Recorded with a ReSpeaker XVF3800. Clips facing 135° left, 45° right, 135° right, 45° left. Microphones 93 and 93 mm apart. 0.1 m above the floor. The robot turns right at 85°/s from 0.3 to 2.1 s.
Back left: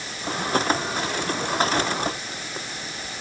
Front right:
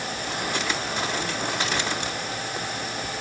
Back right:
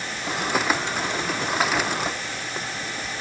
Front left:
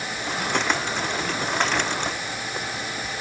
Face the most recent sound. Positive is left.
No sound to turn to.